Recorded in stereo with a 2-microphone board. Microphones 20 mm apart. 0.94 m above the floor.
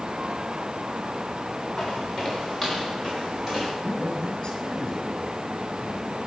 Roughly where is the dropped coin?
No dropped coin in this recording.